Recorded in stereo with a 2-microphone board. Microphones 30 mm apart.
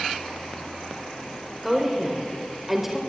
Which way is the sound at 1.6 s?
15° right (ahead or behind).